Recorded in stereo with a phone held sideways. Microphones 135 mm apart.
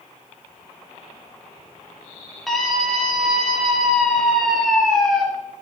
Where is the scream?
Centre (ahead or behind), 2 m.